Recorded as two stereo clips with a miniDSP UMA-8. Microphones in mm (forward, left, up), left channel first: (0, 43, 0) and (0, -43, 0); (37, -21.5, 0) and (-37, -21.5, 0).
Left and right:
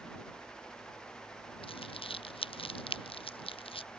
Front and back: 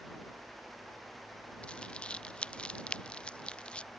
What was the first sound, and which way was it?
Crumpling, 75° left.